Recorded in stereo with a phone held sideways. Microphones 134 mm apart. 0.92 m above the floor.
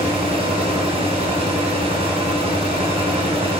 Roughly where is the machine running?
Right.